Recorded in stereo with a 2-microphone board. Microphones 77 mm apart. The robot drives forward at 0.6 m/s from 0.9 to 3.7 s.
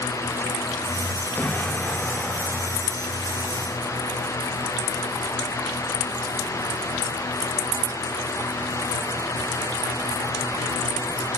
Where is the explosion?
25° left (ahead or behind), 1.8 m; by 3.5 s 15° left (ahead or behind), 3 m.